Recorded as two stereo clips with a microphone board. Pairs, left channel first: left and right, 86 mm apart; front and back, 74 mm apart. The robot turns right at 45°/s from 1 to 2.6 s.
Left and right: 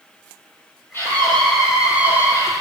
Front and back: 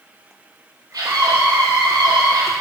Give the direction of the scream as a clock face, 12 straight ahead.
7 o'clock.